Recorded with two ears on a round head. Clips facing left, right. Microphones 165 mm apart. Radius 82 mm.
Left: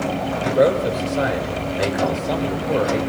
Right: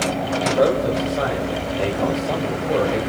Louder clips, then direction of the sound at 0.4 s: Left 1 dB; 30° left (ahead or behind).